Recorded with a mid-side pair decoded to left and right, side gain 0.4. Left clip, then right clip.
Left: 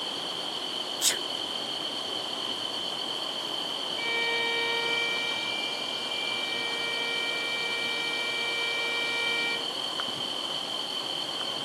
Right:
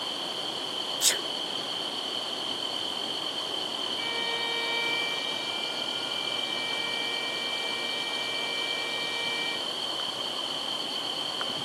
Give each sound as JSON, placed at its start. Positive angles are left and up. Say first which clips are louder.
{"t": 1.0, "sound": "a sneeze", "louder": "right 1 dB", "azimuth_deg": -10, "distance_m": 0.5}
{"t": 4.0, "sound": "a violin", "louder": "left 5 dB", "azimuth_deg": 30, "distance_m": 5.0}